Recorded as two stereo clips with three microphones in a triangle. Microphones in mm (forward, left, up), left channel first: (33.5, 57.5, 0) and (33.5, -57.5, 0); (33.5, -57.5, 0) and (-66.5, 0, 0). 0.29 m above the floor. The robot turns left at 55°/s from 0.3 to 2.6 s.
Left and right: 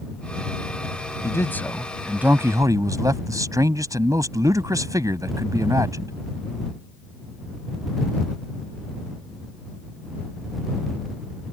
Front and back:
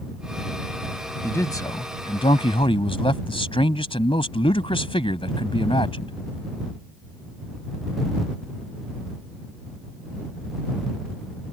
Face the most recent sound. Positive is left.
turn(degrees=-40)